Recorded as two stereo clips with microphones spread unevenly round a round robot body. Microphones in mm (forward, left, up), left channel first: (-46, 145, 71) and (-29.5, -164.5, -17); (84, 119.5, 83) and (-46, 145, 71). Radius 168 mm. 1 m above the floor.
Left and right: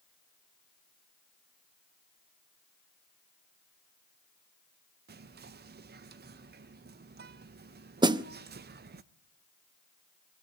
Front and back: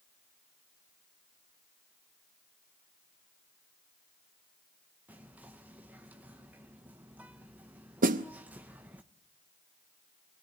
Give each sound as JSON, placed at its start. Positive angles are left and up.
{"t": 5.1, "sound": "whispering", "azimuth_deg": -120, "distance_m": 0.7}
{"t": 8.0, "sound": "a snare drum", "azimuth_deg": -165, "distance_m": 0.6}